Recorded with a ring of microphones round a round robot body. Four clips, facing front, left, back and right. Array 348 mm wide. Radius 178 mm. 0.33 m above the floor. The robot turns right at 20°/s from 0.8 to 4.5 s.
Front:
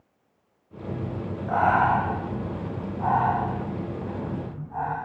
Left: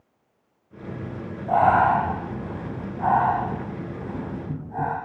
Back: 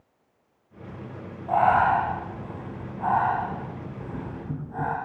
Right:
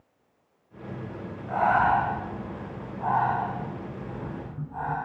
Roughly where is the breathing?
Ahead left.